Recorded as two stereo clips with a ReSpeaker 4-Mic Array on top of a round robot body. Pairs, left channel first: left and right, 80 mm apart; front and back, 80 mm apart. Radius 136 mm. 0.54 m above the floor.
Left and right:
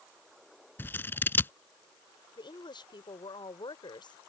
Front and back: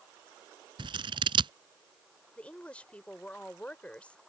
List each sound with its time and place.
0.8 s scissors: 155° left
2.4 s a woman speaking: 75° left